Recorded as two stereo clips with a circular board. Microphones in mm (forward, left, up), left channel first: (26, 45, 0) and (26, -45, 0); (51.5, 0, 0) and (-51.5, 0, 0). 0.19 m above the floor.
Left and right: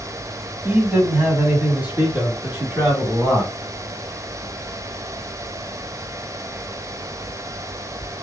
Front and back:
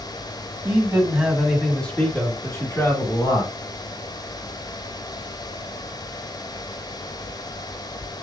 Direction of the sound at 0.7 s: 140° right.